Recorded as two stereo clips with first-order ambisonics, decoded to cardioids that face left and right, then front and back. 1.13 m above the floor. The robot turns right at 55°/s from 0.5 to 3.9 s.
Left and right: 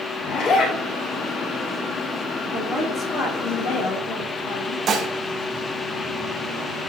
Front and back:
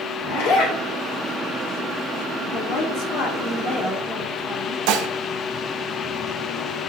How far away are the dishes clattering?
About 0.7 m.